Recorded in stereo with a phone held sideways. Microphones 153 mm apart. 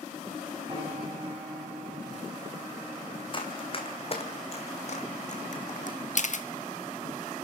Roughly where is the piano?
Right.